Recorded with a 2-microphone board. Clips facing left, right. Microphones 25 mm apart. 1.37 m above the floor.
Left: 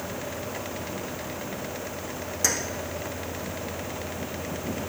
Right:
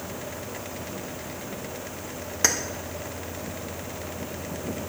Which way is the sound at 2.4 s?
30° right (ahead or behind).